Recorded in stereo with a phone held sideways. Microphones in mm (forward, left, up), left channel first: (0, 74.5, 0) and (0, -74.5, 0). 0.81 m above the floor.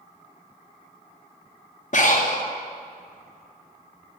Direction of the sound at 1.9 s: 55° left (ahead or behind).